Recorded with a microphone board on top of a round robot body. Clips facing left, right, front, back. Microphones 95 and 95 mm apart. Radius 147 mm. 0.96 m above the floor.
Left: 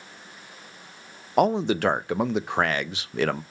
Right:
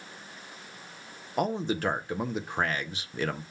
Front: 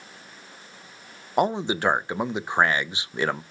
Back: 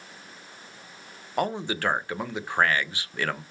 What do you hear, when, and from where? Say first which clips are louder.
1.4 s a man speaking: left 7 dB, front 5 dB; 70° left, 0.6 m